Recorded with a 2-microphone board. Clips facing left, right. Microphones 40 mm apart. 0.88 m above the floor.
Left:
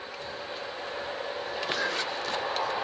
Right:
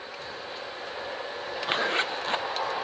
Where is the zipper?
35° right (ahead or behind), 0.5 m.